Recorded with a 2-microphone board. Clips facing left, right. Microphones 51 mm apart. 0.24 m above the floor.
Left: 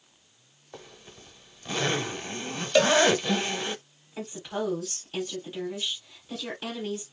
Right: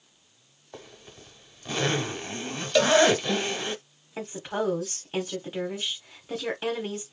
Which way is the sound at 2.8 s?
10° left (ahead or behind).